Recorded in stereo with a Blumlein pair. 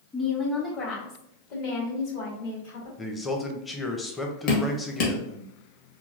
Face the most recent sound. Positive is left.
turn(degrees=45)